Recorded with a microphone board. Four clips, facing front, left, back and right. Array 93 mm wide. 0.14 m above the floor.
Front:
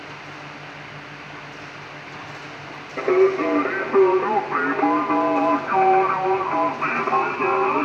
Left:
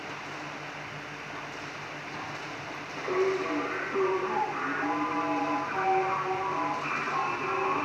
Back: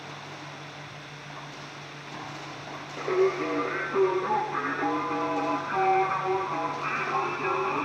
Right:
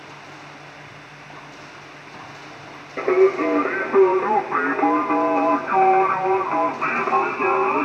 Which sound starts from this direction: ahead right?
Singing, at 3.0 s.